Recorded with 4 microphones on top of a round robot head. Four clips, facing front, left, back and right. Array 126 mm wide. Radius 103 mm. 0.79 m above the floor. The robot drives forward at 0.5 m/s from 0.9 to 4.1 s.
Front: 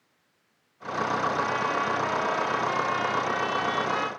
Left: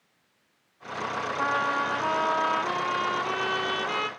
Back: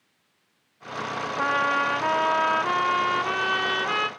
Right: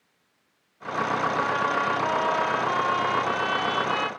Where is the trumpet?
170° left, 1.1 m; by 4.1 s 175° left, 2 m.